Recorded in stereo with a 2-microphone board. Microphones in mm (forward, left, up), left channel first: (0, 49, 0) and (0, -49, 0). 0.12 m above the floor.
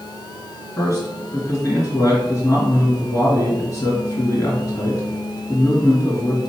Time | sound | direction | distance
0.8 | a man speaking | 35° left (ahead or behind) | 2.0 m